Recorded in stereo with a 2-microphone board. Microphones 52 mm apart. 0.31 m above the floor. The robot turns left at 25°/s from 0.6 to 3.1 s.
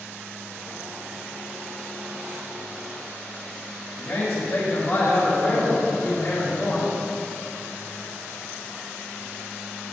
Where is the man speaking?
45° left (ahead or behind), 1.9 m.